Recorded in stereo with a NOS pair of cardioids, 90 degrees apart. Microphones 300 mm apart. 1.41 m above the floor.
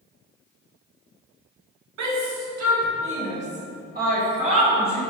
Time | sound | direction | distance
2.0 | a shout | 65° right | 2 m